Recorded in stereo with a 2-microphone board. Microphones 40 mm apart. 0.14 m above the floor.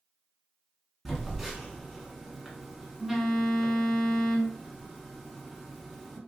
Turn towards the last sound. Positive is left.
turn(degrees=-5)  # may be behind; listen again after turning